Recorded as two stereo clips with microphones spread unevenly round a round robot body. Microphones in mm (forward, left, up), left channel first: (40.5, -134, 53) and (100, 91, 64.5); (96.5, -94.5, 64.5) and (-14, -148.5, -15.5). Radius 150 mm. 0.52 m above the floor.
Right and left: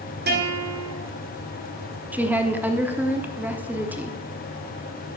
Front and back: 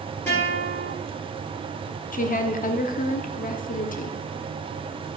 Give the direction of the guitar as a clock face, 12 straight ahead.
8 o'clock.